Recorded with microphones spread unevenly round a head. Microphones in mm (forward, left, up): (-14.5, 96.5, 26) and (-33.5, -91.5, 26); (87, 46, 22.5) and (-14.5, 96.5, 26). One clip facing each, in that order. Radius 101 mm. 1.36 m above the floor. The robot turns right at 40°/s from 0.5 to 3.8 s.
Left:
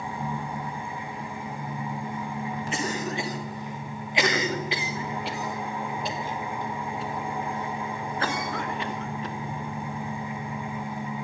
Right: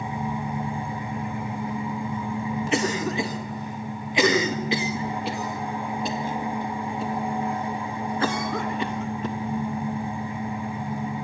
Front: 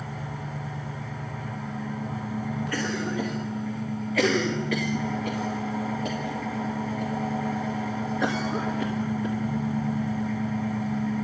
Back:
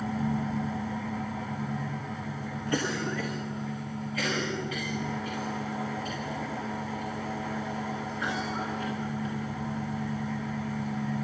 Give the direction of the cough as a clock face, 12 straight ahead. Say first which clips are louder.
Right 6 dB, back 1 dB; 4 o'clock.